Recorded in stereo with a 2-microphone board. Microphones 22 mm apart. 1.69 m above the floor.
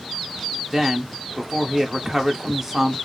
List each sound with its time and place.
0.7 s a woman speaking: 10° right (ahead or behind), 1.0 m